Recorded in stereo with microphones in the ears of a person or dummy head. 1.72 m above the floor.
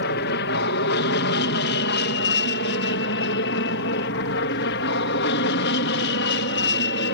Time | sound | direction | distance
0.0 | an aircraft | 60° left (ahead or behind) | ?